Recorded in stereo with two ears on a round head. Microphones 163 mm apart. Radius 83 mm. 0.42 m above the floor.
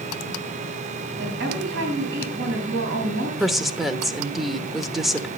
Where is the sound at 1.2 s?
70° right (ahead or behind), 3.5 m.